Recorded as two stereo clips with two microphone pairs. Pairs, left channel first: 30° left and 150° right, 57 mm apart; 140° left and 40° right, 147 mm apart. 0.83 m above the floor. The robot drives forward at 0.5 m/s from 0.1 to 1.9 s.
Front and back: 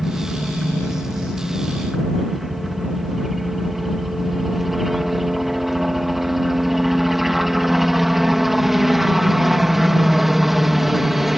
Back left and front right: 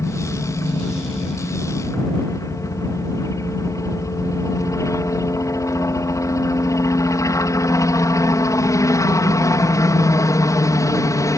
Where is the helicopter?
120° left; by 11.4 s 130° left.